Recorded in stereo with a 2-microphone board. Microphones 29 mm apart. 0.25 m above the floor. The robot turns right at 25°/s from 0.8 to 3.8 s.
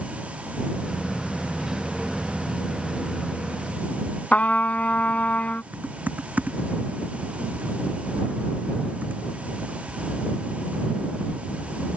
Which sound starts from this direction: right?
Typing on a keyboard, at 5.7 s.